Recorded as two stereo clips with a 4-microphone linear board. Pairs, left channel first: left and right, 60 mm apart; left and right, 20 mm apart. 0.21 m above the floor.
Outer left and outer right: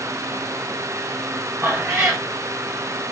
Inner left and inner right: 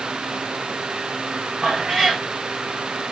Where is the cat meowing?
30° right (ahead or behind), 2.0 m.